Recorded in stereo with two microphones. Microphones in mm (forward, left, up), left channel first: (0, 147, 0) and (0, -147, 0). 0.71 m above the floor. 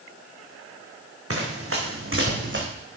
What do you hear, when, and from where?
1.3 s running footsteps: 55° right (ahead or behind), 3 m; by 2.6 s 45° right (ahead or behind), 2.5 m